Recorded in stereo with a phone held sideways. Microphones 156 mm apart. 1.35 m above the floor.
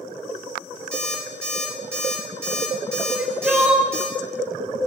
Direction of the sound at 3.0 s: 10° right (ahead or behind).